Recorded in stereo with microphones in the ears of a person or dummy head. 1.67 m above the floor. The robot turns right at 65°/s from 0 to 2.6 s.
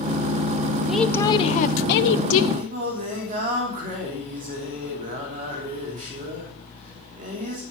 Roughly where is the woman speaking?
Ahead.